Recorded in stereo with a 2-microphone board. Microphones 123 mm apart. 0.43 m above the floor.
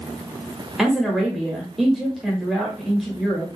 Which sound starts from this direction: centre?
A woman speaking, at 0.8 s.